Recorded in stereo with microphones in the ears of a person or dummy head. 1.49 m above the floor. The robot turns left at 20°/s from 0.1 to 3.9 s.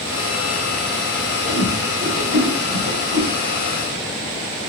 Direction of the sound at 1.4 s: 40° right (ahead or behind).